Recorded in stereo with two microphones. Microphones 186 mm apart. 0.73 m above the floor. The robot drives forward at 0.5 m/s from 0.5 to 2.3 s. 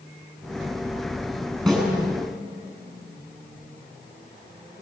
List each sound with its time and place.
1.7 s a snare drum: centre (ahead or behind), 7 m